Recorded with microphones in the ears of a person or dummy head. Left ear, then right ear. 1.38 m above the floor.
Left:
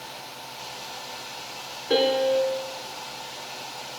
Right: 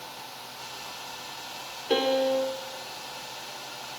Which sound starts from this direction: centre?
A piano, at 1.9 s.